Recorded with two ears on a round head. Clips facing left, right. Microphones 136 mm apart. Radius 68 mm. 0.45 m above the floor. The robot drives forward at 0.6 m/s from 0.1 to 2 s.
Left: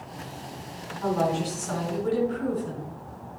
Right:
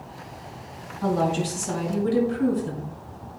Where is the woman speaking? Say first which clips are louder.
Right 2 dB; 35° right (ahead or behind), 4 m; by 2.9 s 30° right (ahead or behind), 4.5 m.